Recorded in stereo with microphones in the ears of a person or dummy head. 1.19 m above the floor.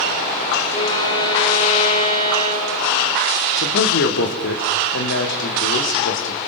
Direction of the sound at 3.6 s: 65° left (ahead or behind).